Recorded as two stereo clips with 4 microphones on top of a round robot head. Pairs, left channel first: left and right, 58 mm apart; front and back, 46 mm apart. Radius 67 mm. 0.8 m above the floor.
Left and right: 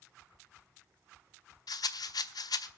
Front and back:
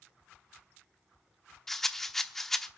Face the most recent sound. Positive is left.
turn(degrees=85)